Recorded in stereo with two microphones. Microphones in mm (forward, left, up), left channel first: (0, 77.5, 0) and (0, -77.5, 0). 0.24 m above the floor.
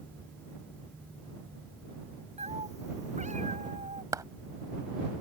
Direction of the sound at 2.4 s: 45° right (ahead or behind).